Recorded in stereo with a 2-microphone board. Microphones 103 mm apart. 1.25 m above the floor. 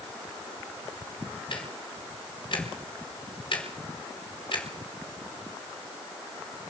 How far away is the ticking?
About 4.5 m.